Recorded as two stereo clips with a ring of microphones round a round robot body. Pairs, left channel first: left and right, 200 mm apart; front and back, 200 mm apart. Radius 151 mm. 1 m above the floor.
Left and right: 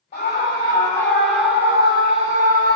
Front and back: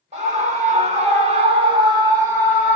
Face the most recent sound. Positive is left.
turn(degrees=-100)